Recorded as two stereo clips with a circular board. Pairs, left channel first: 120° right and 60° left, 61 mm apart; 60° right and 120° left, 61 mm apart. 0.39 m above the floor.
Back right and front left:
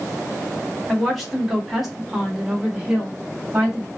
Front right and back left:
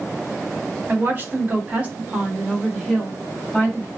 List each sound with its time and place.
0.9 s a woman speaking: 155° left, 1.3 m; by 3.9 s 5° right, 1.2 m